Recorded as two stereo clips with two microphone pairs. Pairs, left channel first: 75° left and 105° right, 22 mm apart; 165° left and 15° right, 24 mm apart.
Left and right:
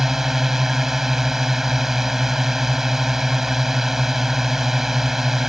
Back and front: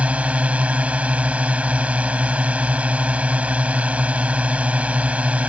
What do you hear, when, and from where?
0.0 s a drone: 35° right